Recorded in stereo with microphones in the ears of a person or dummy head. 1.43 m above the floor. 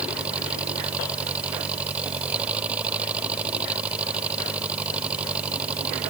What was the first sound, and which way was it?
An engine running, 10° right (ahead or behind).